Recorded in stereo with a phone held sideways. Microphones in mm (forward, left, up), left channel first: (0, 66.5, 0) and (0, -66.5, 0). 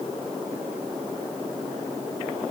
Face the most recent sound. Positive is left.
No sound to turn to.